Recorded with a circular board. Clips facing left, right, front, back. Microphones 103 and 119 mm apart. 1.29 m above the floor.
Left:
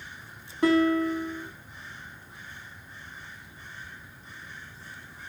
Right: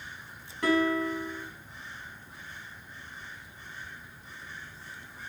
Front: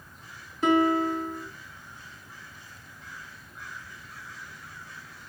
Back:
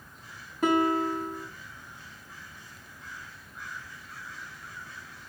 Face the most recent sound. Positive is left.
turn(degrees=150)